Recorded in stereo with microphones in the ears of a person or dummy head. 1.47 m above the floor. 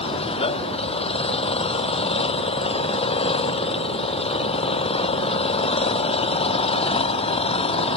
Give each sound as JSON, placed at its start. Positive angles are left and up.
{"t": 0.0, "sound": "an engine running", "side_deg": 30}